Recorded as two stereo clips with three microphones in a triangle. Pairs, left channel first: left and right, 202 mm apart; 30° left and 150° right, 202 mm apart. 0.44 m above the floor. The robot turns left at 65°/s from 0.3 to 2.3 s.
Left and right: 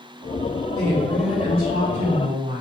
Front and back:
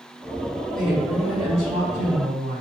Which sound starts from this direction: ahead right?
A woman speaking, at 0.8 s.